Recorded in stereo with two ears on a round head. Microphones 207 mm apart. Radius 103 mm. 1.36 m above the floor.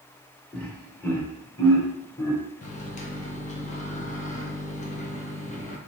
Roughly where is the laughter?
Centre.